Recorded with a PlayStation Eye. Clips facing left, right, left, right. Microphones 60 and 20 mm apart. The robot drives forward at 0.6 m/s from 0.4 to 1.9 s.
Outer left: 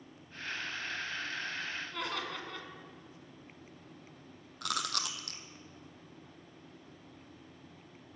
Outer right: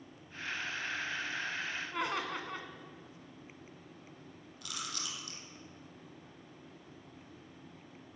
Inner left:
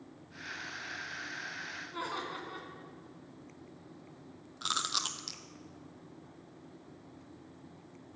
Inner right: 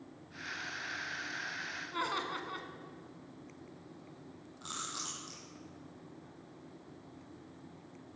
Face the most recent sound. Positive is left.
turn(degrees=65)  # may be behind; listen again after turning